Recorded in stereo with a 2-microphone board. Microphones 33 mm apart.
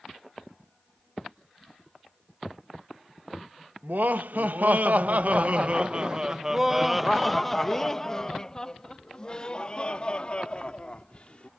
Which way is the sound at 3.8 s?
75° right (ahead or behind).